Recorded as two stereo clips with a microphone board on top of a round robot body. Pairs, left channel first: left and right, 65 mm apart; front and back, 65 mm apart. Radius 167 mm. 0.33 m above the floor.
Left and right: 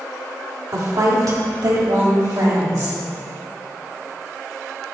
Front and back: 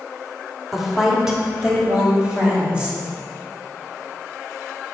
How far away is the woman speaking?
About 1.9 m.